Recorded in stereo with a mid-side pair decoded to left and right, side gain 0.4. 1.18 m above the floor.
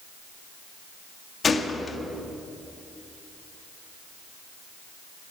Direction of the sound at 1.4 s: 45° left.